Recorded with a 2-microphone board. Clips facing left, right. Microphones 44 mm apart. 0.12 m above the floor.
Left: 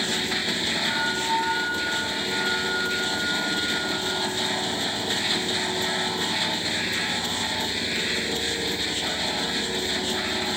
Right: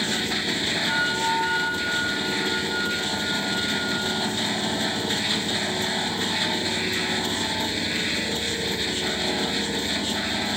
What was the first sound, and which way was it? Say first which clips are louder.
A flute: right 3 dB; 30° right (ahead or behind).